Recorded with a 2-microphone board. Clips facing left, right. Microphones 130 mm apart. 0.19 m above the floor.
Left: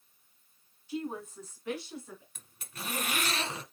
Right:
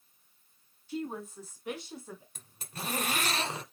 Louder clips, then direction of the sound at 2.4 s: Right 3 dB; 30° right (ahead or behind).